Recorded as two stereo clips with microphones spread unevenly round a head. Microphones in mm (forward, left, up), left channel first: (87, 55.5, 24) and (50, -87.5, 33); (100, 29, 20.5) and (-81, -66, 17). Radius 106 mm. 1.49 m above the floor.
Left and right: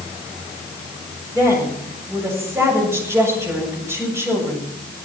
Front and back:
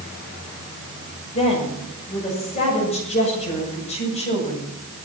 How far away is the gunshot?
No gunshot in this recording.